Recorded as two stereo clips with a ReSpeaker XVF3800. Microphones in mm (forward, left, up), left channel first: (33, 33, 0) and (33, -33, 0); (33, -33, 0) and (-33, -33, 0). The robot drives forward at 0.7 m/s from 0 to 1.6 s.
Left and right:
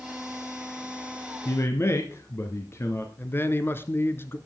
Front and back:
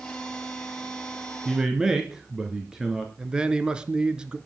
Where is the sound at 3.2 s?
110° left, 1.4 m.